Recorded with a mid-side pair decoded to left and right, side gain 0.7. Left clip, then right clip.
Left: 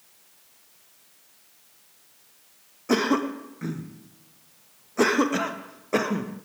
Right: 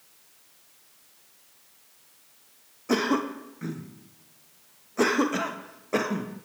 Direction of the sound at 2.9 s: 10° left.